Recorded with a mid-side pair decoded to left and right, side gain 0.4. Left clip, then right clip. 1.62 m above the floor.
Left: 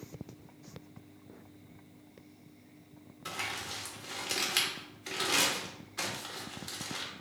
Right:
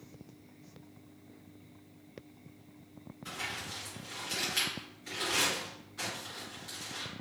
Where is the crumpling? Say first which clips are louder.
Left 2 dB; 60° left, 1.5 m.